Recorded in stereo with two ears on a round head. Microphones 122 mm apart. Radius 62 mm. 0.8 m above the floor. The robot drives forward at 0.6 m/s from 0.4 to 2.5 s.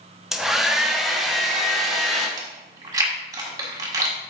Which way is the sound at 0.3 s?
5° right (ahead or behind).